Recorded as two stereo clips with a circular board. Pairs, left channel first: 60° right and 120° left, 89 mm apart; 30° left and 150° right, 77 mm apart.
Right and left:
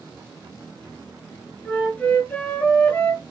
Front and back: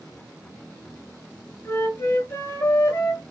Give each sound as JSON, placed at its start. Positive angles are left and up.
{"t": 1.6, "sound": "a flute", "azimuth_deg": 0, "distance_m": 1.1}